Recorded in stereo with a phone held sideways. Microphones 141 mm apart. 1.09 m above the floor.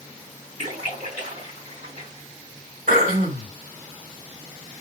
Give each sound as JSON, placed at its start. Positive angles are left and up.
{"t": 0.6, "sound": "a splash", "side_deg": -70, "distance_m": 3.0}
{"t": 2.9, "sound": "throat clearing", "side_deg": -70, "distance_m": 3.0}